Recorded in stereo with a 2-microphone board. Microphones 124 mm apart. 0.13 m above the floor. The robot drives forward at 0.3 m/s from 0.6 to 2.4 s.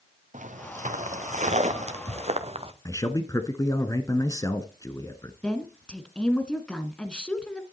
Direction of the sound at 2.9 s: 30° left (ahead or behind).